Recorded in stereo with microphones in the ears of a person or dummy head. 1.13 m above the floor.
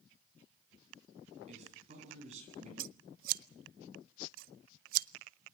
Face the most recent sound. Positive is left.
turn(degrees=-50)  # may be behind; listen again after turning